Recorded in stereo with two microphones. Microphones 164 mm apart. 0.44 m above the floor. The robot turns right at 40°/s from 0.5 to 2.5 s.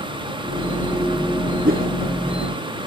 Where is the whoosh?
65° right (ahead or behind); by 1.9 s 55° right (ahead or behind).